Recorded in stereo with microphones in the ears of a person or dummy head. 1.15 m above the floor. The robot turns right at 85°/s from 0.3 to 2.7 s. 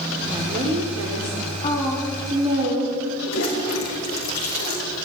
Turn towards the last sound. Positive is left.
turn(degrees=80)